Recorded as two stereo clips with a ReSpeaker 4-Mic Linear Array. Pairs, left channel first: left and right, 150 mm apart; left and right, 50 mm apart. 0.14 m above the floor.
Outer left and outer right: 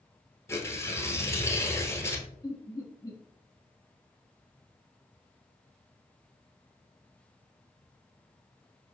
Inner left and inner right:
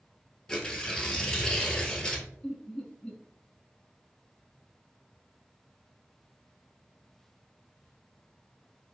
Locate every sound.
0.5 s tearing paper: 15° left (ahead or behind), 0.9 m
2.4 s laughter: 25° left (ahead or behind), 1.1 m